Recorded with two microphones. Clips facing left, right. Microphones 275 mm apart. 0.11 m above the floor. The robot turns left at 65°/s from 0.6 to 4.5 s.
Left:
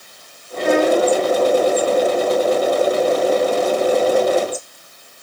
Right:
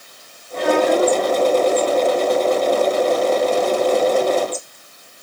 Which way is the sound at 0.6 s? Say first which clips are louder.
Left 1 dB; 95° right.